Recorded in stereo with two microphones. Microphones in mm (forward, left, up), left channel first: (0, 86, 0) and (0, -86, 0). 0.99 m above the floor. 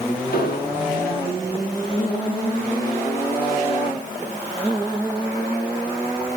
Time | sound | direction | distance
0.3 | an explosion | 70° left (ahead or behind) | 2.5 m